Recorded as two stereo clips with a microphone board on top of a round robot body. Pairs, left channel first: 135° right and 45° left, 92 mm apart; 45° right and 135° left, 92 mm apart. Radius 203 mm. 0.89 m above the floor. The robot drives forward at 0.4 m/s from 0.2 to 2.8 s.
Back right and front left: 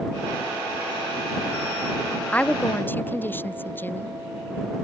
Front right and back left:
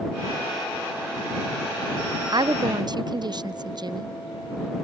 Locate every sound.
2.3 s a woman speaking: 155° left; by 4.2 s 160° left